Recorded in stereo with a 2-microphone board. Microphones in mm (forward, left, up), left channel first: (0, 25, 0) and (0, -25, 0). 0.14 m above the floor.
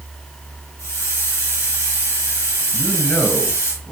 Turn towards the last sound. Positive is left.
turn(degrees=25)  # may be behind; listen again after turning